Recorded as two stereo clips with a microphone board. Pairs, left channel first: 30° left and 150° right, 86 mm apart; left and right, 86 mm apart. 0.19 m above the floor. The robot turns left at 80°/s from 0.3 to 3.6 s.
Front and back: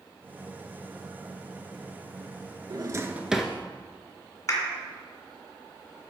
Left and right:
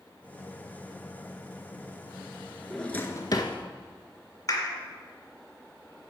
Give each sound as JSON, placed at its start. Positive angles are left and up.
{"t": 2.7, "sound": "a drawer", "azimuth_deg": 175, "distance_m": 0.7}
{"t": 4.5, "sound": "a clap", "azimuth_deg": 70, "distance_m": 1.9}